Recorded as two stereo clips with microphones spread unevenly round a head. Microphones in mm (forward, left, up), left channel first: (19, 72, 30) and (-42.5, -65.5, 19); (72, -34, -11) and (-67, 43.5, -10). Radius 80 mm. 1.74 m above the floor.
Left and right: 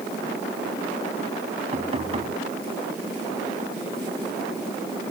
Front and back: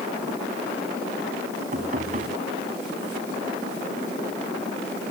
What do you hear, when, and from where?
1.7 s knocking: 165° right